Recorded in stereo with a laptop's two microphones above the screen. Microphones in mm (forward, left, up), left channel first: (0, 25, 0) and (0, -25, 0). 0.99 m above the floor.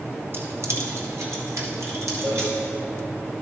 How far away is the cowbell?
About 2 m.